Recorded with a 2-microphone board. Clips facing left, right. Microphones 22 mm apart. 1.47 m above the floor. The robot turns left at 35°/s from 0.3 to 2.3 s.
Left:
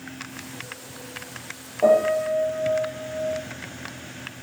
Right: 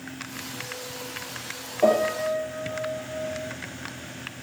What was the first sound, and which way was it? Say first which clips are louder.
A piano: left 3 dB; 25° right (ahead or behind).